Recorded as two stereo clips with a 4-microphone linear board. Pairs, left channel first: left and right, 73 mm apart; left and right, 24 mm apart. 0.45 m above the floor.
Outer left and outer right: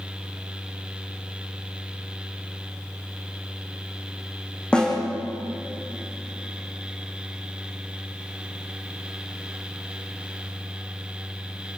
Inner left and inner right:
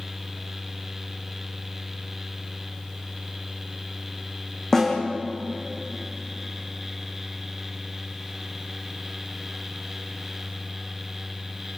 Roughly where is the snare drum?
Centre.